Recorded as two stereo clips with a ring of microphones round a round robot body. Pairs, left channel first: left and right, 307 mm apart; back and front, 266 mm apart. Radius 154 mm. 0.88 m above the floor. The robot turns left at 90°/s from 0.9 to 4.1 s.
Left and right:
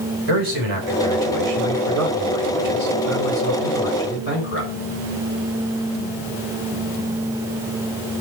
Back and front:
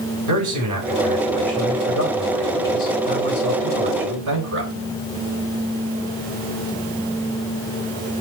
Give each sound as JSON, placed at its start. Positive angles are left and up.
{"t": 0.3, "sound": "a man speaking", "azimuth_deg": -35, "distance_m": 4.5}